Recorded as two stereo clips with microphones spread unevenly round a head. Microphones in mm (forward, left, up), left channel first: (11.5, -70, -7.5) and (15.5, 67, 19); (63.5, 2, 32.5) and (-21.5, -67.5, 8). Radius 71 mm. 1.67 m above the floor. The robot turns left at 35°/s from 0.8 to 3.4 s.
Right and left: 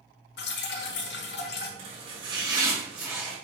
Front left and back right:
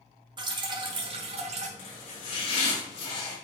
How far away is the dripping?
About 1.4 m.